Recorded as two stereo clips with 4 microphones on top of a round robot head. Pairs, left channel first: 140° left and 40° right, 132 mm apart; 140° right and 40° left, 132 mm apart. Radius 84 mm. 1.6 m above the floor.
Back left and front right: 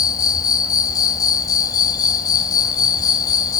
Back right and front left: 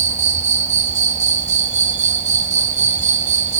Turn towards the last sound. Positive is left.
turn(degrees=75)